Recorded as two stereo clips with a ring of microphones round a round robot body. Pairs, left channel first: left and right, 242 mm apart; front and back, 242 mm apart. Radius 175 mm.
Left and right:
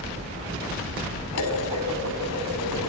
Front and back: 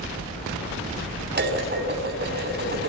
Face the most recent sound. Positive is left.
turn(degrees=135)